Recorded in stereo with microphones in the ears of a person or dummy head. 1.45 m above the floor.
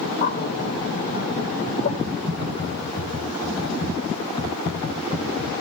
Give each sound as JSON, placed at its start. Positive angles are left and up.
{"t": 0.2, "sound": "a bird", "side_deg": 45, "distance_m": 1.8}
{"t": 2.0, "sound": "typing on a keyboard", "side_deg": 20, "distance_m": 3.0}